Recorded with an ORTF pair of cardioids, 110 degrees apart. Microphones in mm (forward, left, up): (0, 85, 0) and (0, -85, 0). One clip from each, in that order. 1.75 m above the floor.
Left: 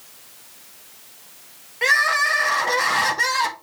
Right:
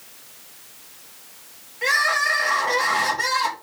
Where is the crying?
45° left, 1.8 m.